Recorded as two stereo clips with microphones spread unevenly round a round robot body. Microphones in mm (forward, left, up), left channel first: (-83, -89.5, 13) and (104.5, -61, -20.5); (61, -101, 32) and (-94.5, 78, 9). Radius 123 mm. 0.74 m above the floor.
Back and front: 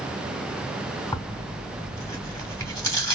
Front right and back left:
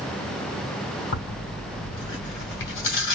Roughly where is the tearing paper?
Right.